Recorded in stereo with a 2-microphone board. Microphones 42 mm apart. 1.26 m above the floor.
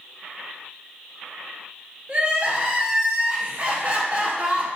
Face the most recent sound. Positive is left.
turn(degrees=-30)  # may be behind; listen again after turning